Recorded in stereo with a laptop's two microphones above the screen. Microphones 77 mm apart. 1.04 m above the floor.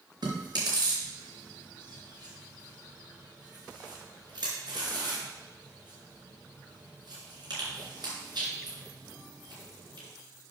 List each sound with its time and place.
0.2 s chewing: 75° right (ahead or behind), 3.5 m